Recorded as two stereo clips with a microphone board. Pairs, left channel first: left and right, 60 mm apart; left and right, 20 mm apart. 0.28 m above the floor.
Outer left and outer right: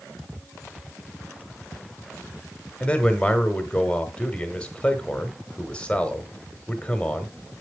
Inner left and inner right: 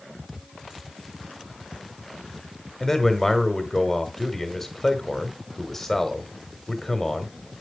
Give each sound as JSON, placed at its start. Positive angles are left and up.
{"t": 2.8, "sound": "a man speaking", "side_deg": 20, "distance_m": 1.3}